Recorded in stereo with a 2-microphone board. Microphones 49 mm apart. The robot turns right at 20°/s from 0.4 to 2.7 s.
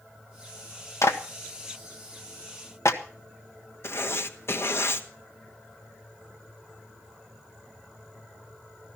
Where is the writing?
55° left (ahead or behind), 1.2 m.